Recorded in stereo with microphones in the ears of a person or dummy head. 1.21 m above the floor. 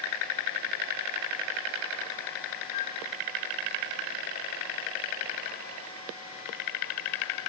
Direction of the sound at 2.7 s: 50° left (ahead or behind).